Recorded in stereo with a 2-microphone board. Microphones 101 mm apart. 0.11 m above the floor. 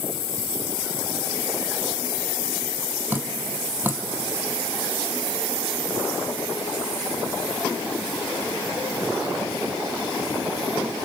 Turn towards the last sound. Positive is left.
turn(degrees=-20)  # may be behind; listen again after turning